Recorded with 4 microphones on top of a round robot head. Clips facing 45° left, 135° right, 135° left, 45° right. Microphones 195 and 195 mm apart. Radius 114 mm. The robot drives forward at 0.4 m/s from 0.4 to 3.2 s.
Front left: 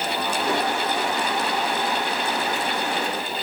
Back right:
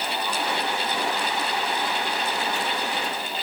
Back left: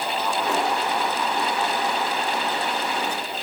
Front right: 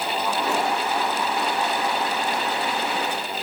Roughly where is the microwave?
I don't hear a microwave.